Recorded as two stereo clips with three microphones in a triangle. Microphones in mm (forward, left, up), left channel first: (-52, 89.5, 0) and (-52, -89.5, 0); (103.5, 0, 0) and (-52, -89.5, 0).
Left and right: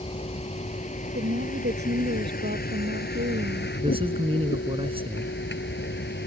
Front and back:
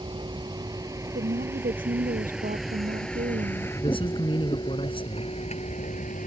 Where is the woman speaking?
110° right.